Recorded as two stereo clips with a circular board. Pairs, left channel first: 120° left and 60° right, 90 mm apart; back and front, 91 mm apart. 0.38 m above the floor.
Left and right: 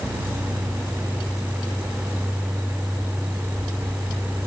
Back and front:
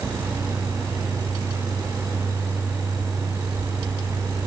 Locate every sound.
Only background noise.